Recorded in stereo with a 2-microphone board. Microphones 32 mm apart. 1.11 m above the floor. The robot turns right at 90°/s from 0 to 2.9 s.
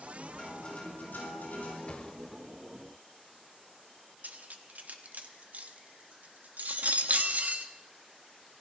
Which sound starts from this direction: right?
Cutlery clinking, at 4.2 s.